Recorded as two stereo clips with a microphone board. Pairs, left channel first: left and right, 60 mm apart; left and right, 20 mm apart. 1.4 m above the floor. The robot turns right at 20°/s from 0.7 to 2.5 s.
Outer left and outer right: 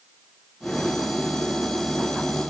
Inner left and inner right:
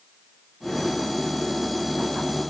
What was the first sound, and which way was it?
Only background noise.